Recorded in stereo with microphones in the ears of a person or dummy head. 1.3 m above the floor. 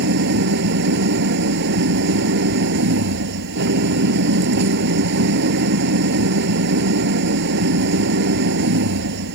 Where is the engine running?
65° right (ahead or behind).